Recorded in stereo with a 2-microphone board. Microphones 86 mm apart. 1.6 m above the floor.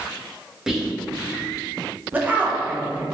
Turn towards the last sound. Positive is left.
turn(degrees=-20)  # may be behind; listen again after turning